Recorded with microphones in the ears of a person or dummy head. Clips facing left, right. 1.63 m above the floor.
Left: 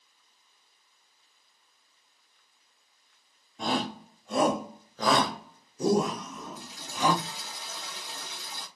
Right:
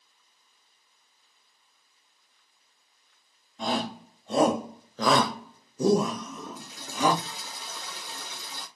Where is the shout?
Centre (ahead or behind), 0.8 m; by 7.2 s 70° right (ahead or behind), 1.6 m.